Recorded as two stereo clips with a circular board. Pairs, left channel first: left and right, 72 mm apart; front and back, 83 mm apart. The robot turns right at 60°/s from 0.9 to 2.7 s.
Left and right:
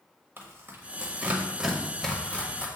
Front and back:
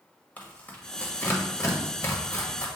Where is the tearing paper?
60° right, 1.4 m; by 2.7 s 50° left, 1.4 m.